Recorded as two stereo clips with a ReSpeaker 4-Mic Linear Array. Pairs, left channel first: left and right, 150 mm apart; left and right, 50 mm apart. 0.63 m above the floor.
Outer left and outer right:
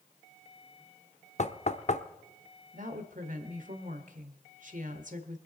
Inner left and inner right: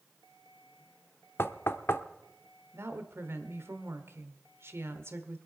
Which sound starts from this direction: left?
Knocking, at 1.4 s.